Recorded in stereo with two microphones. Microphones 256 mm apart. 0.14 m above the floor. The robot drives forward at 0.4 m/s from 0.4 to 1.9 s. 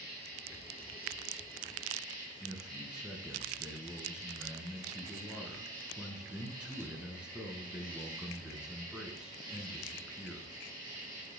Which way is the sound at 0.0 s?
40° right (ahead or behind).